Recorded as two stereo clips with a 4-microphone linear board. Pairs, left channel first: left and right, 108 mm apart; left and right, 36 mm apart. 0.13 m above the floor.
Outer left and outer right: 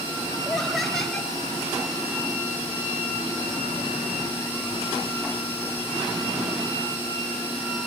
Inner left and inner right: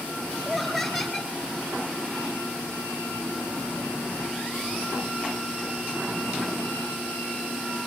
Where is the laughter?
Centre (ahead or behind), 2.5 m.